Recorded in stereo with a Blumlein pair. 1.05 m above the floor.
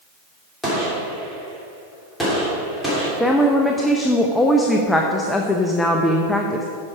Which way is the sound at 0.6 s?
5° left.